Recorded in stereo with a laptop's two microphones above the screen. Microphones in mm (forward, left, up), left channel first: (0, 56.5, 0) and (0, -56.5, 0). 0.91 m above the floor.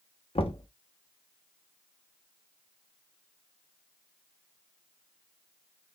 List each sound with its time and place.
0.3 s knocking: 55° left (ahead or behind), 0.9 m